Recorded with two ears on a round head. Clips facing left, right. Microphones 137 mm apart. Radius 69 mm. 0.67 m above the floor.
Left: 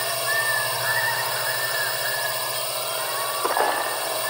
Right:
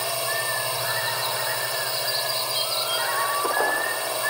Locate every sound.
0.0 s a drone: centre (ahead or behind)